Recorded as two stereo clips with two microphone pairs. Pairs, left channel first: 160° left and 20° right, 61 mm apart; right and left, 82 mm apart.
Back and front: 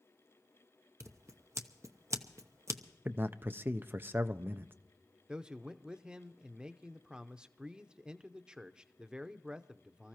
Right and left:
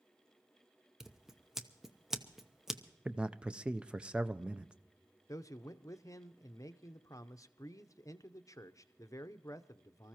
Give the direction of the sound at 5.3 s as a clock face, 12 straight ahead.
3 o'clock.